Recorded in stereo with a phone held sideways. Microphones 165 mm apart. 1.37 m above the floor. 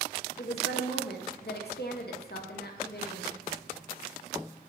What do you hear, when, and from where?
0.4 s a woman speaking: 75° left (ahead or behind), 0.5 m